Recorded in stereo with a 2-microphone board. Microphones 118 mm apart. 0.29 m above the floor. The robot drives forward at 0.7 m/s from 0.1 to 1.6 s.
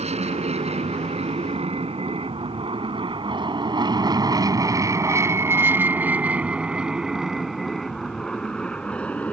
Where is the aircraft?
65° right (ahead or behind); by 9.3 s 10° left (ahead or behind).